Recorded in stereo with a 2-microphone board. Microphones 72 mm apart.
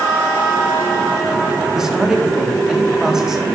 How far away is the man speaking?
About 4 m.